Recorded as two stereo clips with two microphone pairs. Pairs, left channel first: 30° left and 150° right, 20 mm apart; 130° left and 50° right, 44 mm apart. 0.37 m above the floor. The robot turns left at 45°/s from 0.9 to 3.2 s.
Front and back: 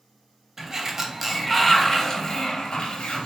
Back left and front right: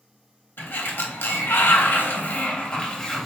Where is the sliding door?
150° left, 0.7 m; by 3.3 s 45° left, 0.7 m.